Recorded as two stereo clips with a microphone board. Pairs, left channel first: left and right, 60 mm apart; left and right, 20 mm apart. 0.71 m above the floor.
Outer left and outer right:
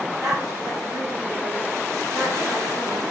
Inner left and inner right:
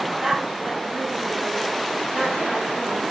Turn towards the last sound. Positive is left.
turn(degrees=-70)  # may be behind; listen again after turning